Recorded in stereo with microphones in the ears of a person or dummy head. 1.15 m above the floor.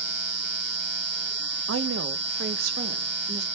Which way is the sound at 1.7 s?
70° right (ahead or behind).